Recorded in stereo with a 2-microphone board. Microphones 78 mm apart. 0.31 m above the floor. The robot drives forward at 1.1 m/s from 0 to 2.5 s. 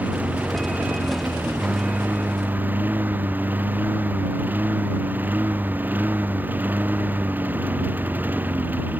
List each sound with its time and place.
0.0 s a lawn mower: 20° right (ahead or behind)